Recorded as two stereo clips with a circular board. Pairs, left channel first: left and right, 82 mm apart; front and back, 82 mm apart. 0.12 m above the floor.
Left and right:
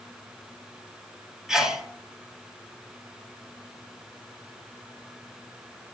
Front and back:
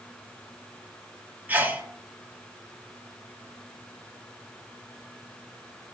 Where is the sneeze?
160° right, 1.1 m.